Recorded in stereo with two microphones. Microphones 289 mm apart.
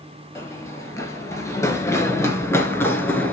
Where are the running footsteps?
10° left (ahead or behind), 1.6 m; by 3.3 s 5° left (ahead or behind), 1.2 m.